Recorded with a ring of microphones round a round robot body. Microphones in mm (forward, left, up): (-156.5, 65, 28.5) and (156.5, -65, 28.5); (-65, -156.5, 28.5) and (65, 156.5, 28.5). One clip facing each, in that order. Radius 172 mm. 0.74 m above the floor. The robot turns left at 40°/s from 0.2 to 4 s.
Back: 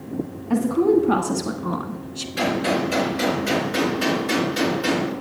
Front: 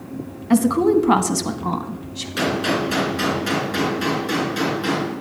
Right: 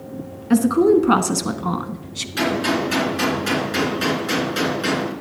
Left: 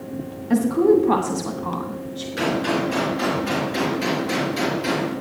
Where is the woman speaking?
45° right, 1.2 m; by 2.3 s 115° right, 1.2 m.